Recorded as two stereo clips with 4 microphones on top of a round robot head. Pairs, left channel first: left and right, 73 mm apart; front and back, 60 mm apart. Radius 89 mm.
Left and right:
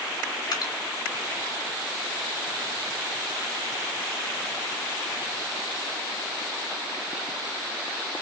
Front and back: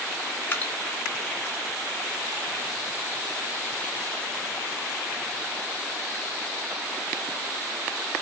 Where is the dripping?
60° left, 2 m.